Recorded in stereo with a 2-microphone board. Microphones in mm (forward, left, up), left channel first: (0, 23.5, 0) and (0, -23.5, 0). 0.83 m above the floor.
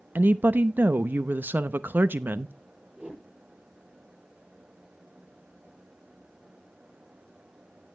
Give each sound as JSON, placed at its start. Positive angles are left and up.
{"t": 0.1, "sound": "a woman speaking", "side_deg": -45, "distance_m": 0.6}
{"t": 3.0, "sound": "a whoosh", "side_deg": -25, "distance_m": 9.0}